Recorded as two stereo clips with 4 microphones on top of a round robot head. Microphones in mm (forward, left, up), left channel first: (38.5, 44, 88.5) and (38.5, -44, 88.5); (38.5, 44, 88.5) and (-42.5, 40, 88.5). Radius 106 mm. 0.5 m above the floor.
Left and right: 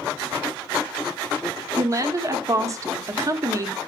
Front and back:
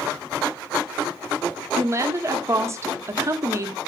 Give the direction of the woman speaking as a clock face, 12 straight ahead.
4 o'clock.